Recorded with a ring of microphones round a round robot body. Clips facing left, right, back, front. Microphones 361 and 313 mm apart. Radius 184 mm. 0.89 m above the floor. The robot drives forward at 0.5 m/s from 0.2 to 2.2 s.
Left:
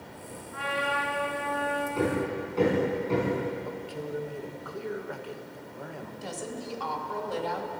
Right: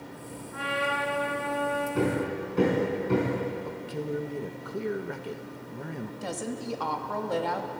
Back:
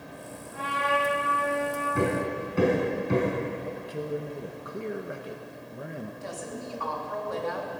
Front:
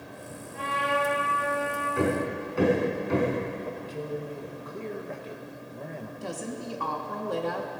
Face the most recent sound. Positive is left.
turn(degrees=-55)